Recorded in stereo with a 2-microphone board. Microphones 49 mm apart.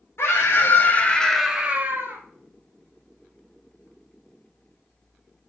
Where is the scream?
60° left (ahead or behind), 1.6 m; by 2.2 s 50° right (ahead or behind), 1.3 m.